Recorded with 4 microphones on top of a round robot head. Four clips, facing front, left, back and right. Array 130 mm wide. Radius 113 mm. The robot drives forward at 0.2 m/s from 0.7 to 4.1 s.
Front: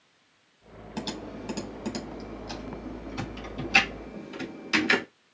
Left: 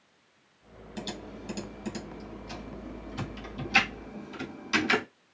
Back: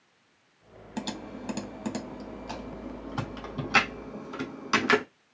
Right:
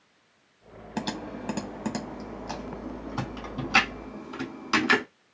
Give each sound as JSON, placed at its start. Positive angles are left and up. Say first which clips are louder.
{"t": 1.0, "sound": "typing on a keyboard", "louder": "right 7 dB, even", "azimuth_deg": -95, "distance_m": 0.6}